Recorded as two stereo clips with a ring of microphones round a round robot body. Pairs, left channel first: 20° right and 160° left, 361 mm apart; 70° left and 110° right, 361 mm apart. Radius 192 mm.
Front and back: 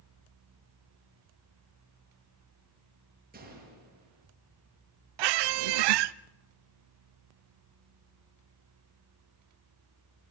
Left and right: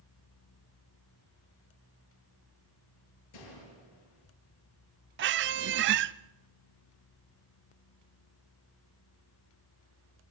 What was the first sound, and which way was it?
A gunshot, 90° left.